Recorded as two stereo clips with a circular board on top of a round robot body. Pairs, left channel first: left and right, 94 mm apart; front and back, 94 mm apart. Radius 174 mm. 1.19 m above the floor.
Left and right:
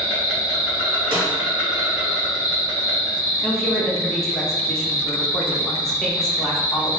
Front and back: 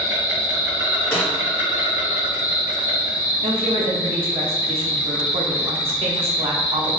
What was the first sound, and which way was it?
An insect, 170° right.